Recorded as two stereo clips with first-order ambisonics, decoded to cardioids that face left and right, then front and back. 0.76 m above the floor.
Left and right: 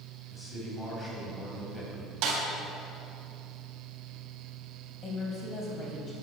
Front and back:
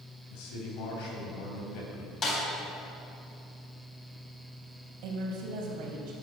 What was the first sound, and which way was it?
A man speaking, 5° left.